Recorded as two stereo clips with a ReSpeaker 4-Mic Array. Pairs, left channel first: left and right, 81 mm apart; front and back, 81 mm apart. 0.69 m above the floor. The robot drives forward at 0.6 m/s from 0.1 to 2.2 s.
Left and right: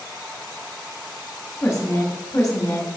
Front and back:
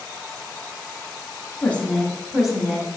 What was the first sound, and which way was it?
A woman speaking, 60° left.